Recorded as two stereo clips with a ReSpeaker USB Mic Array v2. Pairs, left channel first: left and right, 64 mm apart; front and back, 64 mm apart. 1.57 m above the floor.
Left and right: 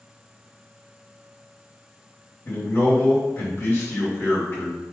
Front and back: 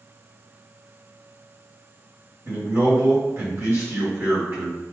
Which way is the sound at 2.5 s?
135° left.